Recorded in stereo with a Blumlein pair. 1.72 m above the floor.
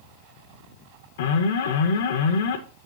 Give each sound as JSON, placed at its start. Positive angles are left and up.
{"t": 1.2, "sound": "an alarm", "azimuth_deg": 55, "distance_m": 1.0}